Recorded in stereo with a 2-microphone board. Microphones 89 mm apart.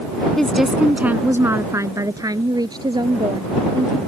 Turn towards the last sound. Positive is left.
turn(degrees=-60)  # may be behind; listen again after turning